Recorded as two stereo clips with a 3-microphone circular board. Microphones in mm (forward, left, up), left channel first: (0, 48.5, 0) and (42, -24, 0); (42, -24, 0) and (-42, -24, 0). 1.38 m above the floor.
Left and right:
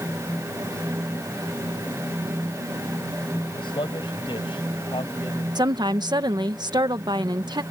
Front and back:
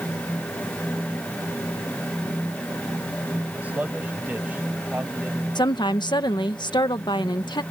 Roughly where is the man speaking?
Left.